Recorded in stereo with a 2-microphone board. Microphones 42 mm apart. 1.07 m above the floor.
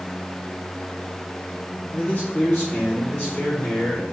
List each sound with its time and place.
1.9 s a man speaking: 30° left (ahead or behind), 0.7 m; by 4.0 s 45° left (ahead or behind), 2.5 m